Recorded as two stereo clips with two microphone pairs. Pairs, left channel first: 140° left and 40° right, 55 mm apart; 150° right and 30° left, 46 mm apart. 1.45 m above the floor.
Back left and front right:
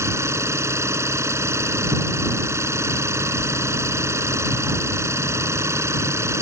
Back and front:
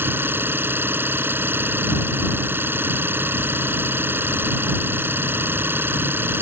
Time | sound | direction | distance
0.0 | an engine running | 10° right | ?